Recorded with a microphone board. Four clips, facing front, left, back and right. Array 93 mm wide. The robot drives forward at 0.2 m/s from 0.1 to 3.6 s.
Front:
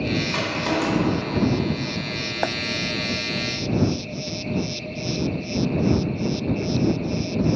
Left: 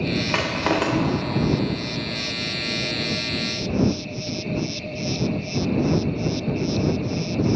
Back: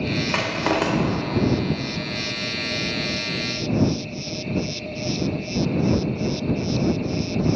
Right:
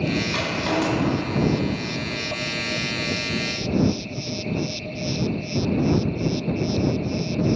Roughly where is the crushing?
Behind left.